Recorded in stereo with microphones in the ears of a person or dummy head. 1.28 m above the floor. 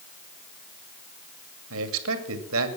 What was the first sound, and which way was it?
A man speaking, 75° right (ahead or behind).